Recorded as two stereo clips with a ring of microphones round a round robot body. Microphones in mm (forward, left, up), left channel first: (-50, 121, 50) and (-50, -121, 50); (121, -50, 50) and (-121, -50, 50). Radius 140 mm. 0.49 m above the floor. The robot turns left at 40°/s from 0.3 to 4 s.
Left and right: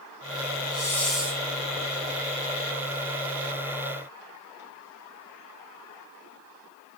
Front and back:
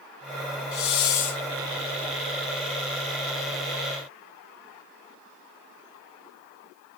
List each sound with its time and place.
0.7 s a hiss: 15° left, 0.8 m; by 1.4 s 10° right, 0.8 m